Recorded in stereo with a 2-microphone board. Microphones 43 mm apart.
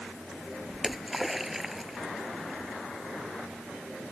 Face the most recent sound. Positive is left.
turn(degrees=-5)  # may be behind; listen again after turning